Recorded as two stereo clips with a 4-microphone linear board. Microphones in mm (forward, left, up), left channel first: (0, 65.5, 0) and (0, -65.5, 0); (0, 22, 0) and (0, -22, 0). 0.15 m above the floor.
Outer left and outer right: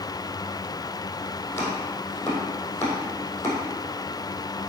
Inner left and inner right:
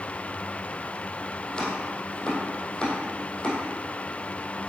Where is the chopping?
15° left (ahead or behind), 2.5 m.